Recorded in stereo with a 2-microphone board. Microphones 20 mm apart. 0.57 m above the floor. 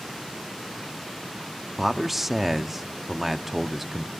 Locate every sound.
1.8 s a man speaking: 10° right (ahead or behind), 0.6 m